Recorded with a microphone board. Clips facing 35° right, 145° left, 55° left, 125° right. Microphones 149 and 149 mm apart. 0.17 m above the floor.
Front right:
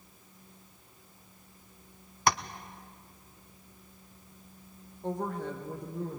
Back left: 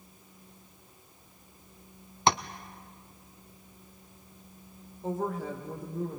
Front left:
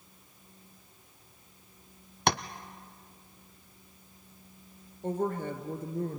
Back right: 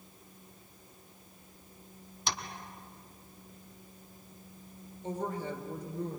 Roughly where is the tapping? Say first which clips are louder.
Back left 2 dB, front left 10 dB; left.